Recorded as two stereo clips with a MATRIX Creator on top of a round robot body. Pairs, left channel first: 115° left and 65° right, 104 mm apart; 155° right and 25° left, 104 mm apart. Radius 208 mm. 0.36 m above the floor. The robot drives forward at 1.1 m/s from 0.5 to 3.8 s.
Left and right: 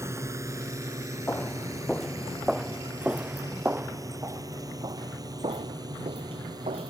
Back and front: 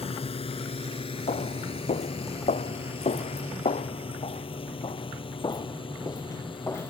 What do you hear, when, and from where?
0.0 s a drone: 130° right; by 6.9 s 120° right
1.3 s footsteps: 175° right; by 6.9 s 90° right